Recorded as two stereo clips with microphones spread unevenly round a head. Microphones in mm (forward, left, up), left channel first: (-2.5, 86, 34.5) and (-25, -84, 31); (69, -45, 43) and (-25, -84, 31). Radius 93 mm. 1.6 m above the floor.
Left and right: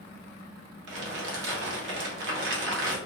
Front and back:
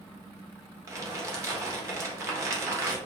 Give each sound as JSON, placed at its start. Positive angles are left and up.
{"t": 0.9, "sound": "crumpling", "azimuth_deg": -100, "distance_m": 0.9}